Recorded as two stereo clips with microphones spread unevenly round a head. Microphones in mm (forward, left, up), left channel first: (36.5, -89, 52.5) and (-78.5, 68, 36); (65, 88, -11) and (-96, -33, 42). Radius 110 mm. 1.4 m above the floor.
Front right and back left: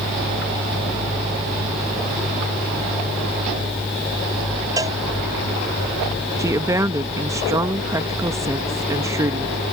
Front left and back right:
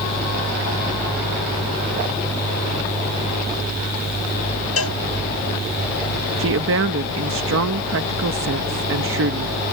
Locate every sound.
4.8 s a cowbell: 50° left
6.4 s a woman speaking: 160° right